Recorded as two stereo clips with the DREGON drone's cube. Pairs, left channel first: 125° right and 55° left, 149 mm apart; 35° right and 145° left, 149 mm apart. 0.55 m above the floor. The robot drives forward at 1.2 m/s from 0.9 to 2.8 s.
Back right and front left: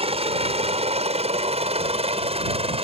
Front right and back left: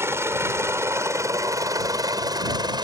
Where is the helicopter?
80° left; by 2.9 s 90° left.